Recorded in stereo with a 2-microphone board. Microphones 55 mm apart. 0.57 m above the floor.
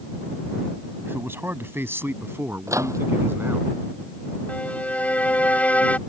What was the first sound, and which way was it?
A man speaking, 45° right (ahead or behind).